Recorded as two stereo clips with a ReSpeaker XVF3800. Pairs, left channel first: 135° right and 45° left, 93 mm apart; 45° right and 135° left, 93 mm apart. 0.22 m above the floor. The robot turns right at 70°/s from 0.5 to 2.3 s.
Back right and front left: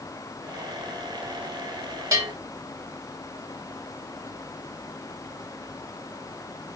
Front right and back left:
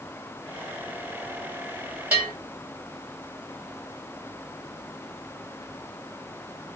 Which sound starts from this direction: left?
A bell, at 2.1 s.